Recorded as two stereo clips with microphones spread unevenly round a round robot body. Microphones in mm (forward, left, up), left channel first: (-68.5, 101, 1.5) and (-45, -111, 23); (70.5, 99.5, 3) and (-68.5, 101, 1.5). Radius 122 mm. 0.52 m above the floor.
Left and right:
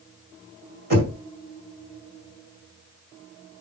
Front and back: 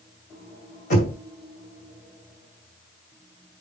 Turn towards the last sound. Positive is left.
turn(degrees=-30)